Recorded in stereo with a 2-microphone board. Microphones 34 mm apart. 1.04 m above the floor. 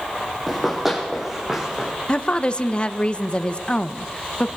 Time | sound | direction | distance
0.5 | running footsteps | 5° right (ahead or behind) | 3 m
2.1 | a woman speaking | 30° left (ahead or behind) | 0.8 m